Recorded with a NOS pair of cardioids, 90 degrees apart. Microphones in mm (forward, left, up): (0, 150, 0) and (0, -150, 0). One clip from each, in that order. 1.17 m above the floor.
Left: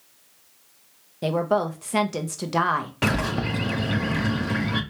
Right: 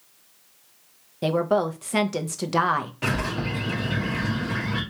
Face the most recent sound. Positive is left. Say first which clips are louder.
# left 2 dB
turn(degrees=45)